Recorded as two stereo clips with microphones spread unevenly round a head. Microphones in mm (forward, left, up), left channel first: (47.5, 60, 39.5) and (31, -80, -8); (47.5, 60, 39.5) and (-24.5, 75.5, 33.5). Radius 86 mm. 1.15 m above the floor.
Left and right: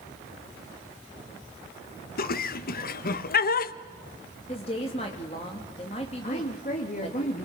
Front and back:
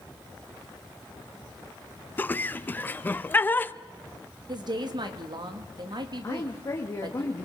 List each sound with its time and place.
2.2 s laughter: 55° left, 0.9 m
4.5 s a woman speaking: 145° left, 2.5 m
6.2 s a woman speaking: 40° left, 2.5 m